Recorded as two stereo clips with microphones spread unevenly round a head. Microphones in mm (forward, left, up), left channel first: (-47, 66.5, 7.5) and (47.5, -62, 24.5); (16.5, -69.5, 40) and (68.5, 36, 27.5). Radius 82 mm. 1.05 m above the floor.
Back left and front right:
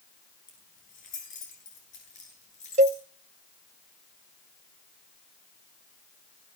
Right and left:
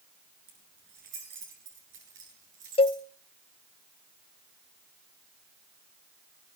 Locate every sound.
0.5 s keys jangling: 85° left, 9 m; by 3.0 s 75° left, 9.5 m
2.8 s a cowbell: 90° right, 0.7 m